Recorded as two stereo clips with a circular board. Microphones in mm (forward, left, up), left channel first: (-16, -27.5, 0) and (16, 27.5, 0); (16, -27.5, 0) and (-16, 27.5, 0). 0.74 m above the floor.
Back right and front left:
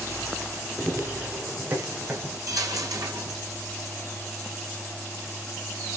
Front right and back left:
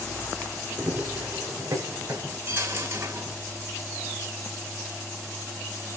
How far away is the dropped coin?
About 2.5 m.